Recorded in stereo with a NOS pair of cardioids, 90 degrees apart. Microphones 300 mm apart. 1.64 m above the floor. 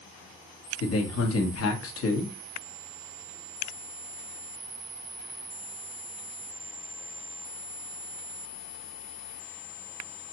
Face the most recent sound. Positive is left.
turn(degrees=50)